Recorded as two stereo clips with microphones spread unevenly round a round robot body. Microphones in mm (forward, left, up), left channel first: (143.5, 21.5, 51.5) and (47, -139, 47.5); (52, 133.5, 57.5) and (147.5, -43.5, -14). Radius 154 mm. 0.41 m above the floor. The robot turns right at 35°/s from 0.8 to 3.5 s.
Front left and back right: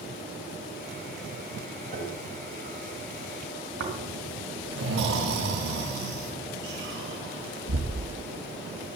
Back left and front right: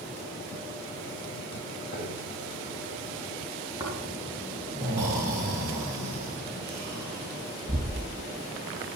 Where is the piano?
Straight behind, 2.5 m; by 2.3 s 165° right, 2.5 m.